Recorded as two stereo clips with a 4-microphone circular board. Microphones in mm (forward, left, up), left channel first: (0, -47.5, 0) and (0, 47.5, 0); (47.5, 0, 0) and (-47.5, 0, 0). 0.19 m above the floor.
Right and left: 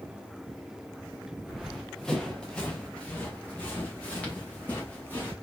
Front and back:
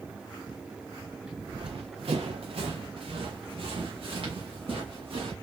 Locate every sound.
1.5 s running footsteps: 175° left, 1.0 m; by 5.3 s 160° right, 3.5 m